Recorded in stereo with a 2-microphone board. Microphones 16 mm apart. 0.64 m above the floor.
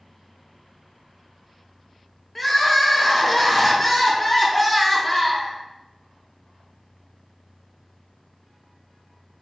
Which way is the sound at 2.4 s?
15° left (ahead or behind).